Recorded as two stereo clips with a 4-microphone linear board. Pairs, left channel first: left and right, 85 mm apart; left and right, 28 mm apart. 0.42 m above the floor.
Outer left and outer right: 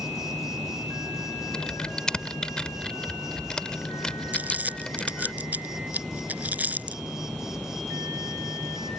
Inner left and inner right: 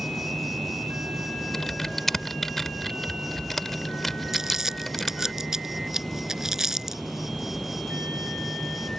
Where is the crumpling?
15° right (ahead or behind).